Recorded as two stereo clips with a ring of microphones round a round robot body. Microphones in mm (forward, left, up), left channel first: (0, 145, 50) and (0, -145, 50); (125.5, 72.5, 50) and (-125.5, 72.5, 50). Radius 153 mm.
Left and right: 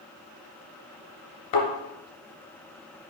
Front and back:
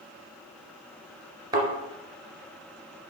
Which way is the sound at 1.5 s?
105° left.